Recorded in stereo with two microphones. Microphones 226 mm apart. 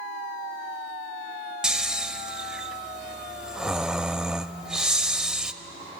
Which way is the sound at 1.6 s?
5° right (ahead or behind).